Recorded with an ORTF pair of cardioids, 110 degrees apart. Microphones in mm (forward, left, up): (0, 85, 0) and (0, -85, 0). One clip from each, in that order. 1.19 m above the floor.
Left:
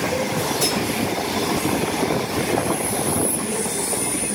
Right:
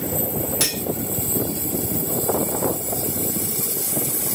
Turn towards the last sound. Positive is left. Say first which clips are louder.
# left 1 dB
turn(degrees=-70)